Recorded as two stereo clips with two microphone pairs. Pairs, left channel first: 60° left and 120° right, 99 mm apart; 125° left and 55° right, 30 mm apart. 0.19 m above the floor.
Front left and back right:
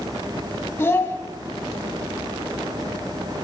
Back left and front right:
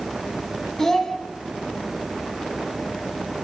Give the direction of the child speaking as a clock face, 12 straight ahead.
10 o'clock.